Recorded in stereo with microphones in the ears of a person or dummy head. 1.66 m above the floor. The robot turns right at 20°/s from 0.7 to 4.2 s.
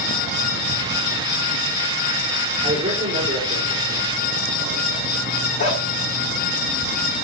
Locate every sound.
2.6 s a man speaking: 25° right (ahead or behind), 5.5 m; by 5.1 s 55° right (ahead or behind), 5.5 m
5.6 s a dog barking: 40° left (ahead or behind), 6 m